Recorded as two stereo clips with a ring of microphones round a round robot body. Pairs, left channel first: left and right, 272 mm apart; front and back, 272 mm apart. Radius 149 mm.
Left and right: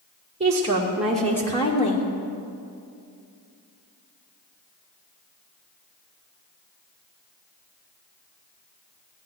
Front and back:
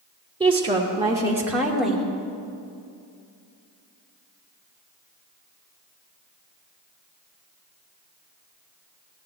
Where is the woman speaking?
130° right, 1.4 m; by 2.0 s 85° left, 1.4 m.